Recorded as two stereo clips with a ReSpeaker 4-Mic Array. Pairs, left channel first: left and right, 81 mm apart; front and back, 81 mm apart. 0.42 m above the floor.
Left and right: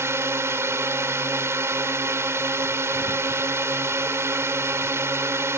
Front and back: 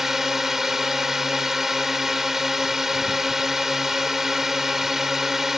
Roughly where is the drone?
Right.